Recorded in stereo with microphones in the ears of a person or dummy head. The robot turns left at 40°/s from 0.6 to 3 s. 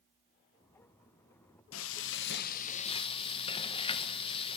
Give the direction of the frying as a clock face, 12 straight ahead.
9 o'clock.